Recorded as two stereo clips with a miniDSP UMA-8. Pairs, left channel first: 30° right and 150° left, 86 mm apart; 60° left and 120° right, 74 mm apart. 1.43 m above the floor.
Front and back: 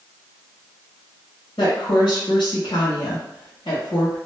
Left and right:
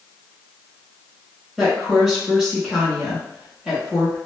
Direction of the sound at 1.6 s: 35° right.